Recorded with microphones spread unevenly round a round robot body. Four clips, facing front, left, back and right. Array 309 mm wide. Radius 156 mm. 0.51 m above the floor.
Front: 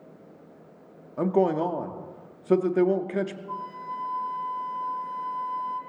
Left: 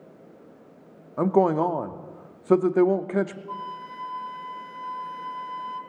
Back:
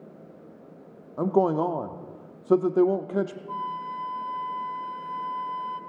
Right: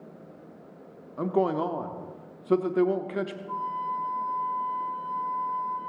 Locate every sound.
1.2 s a man speaking: 110° left, 0.6 m
3.5 s a flute: 120° left, 1.9 m